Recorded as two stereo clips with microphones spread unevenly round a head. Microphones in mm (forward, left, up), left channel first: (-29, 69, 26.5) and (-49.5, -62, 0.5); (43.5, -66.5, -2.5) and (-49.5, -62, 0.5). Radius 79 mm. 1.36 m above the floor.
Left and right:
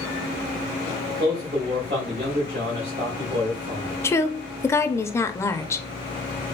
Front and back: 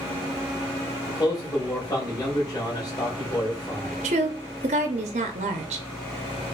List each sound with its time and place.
1.1 s a man speaking: 60° right, 2.0 m
4.0 s a woman speaking: 155° left, 0.5 m